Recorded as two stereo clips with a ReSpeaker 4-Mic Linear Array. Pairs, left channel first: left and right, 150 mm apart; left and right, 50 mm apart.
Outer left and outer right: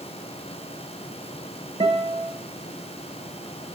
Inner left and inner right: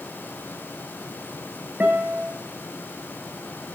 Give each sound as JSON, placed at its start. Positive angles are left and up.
{"t": 1.8, "sound": "a guitar", "side_deg": -30, "distance_m": 1.4}